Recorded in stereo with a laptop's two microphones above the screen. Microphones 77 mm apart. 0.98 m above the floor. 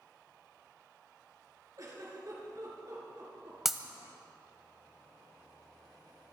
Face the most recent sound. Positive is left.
turn(degrees=-5)  # may be behind; listen again after turning